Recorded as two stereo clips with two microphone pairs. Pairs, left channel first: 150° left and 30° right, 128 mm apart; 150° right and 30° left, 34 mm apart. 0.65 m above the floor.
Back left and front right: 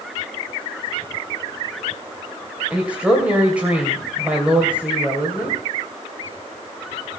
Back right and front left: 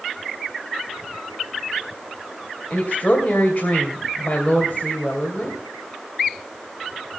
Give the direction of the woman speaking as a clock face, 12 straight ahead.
4 o'clock.